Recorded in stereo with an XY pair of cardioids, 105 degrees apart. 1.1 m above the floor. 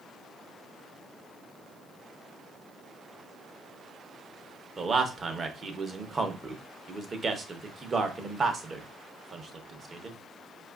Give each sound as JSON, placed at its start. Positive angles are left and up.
{"t": 4.8, "sound": "a man speaking", "azimuth_deg": -35, "distance_m": 0.8}